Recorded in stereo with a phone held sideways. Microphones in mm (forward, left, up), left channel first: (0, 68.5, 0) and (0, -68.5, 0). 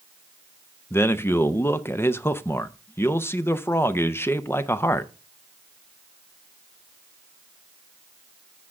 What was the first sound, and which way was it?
A man speaking, 15° left (ahead or behind).